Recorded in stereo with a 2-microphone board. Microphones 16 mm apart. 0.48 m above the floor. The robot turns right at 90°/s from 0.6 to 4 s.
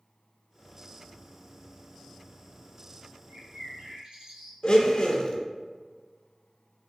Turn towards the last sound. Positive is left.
turn(degrees=50)  # may be behind; listen again after turning